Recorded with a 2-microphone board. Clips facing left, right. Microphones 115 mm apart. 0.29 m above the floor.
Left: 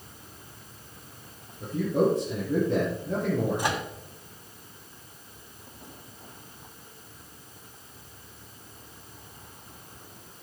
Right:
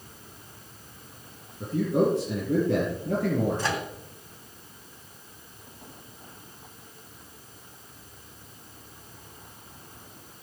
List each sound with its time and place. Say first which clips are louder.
1.6 s a man speaking: right 1 dB; 75° right (ahead or behind), 3 m
3.6 s a microwave: even; 15° left (ahead or behind), 2.0 m